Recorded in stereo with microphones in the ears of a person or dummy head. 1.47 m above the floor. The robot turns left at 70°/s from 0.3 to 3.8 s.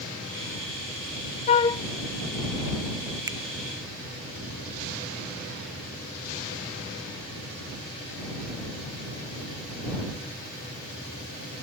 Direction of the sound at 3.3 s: 15° right (ahead or behind).